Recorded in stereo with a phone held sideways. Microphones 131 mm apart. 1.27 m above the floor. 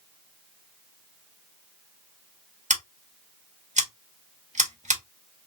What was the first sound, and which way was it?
Scissors, 70° right (ahead or behind).